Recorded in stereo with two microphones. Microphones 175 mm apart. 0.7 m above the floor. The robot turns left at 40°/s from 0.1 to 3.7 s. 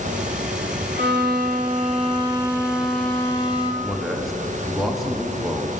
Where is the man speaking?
Centre (ahead or behind), 1.0 m.